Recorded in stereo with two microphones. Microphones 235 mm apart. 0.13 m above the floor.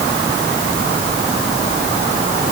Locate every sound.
Only background noise.